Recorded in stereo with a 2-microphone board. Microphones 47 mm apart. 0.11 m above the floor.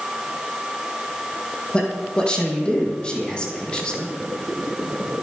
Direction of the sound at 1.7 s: 20° left (ahead or behind).